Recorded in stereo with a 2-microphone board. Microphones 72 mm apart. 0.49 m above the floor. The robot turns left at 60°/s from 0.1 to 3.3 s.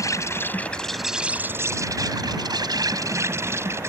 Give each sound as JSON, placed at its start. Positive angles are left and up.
{"t": 0.0, "sound": "an insect", "azimuth_deg": 55}